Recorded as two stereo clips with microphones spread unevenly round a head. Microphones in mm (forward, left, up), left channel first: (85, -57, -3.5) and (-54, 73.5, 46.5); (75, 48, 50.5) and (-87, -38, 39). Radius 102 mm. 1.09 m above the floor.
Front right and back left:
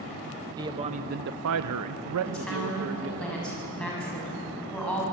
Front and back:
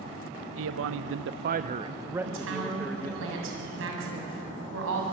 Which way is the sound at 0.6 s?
150° right.